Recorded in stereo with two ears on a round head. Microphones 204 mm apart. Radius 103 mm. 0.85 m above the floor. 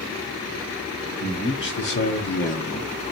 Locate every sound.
1.2 s a man speaking: 60° left (ahead or behind), 2.5 m; by 2.9 s 25° left (ahead or behind), 1.1 m